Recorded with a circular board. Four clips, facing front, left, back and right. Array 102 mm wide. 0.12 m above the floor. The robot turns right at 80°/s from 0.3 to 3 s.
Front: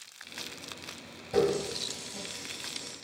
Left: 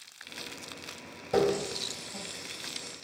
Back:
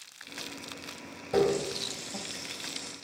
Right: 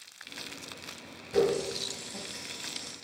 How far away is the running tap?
About 2.0 m.